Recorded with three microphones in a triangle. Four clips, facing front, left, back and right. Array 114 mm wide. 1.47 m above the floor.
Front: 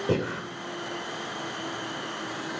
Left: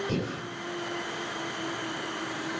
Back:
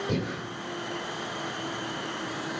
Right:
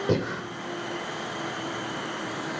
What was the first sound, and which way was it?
Breathing, 50° right.